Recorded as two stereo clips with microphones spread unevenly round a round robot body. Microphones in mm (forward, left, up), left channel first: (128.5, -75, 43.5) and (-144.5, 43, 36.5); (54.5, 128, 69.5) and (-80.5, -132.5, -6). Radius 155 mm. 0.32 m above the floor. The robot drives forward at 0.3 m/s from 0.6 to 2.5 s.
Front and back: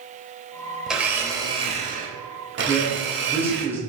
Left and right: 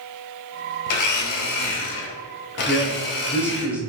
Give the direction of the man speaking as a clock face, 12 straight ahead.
5 o'clock.